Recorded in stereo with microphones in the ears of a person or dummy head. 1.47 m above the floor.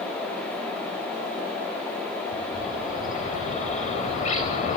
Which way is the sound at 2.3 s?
45° left (ahead or behind).